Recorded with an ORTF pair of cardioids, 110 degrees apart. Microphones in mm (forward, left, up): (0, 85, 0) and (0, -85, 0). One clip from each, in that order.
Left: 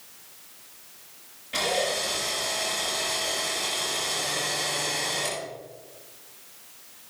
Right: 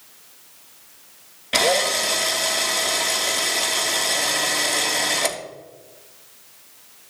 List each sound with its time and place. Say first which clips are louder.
1.5 s a drill: right 7 dB; 65° right, 1.7 m